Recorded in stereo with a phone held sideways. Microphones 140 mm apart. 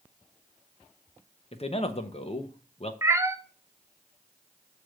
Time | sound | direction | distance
1.5 | a man speaking | 45° left (ahead or behind) | 0.8 m
3.0 | a cat meowing | 20° right (ahead or behind) | 0.5 m